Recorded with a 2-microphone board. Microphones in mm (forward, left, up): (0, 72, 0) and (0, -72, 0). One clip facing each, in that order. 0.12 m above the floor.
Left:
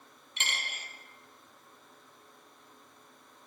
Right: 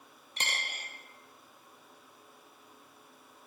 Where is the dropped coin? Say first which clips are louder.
Right 1 dB; 40° right (ahead or behind), 1.5 m.